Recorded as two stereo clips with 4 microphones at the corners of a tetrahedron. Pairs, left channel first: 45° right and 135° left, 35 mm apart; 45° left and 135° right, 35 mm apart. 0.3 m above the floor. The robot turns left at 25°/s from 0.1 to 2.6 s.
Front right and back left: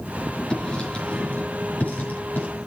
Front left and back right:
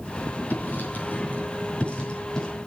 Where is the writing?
25° left, 5 m; by 2.5 s 25° right, 5 m.